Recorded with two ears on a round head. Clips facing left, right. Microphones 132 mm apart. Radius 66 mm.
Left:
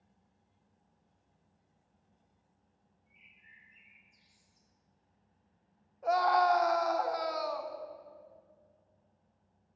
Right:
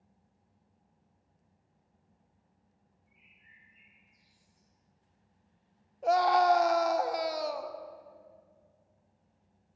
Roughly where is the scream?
Right.